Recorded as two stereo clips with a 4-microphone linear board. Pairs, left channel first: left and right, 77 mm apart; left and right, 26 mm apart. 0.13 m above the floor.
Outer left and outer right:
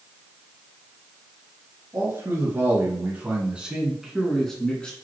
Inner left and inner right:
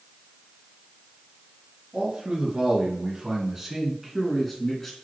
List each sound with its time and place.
1.9 s a man speaking: 35° right (ahead or behind), 2 m; by 5.0 s 15° left (ahead or behind), 1.5 m